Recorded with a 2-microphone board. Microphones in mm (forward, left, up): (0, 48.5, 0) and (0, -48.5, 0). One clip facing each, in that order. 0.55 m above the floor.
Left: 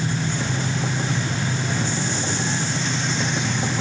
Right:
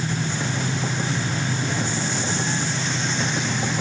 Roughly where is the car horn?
I don't hear a car horn.